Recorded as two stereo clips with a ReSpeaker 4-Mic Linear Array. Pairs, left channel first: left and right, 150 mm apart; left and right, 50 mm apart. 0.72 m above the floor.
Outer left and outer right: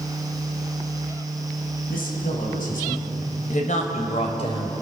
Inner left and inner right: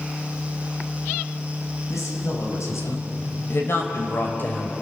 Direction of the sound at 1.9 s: 80° left.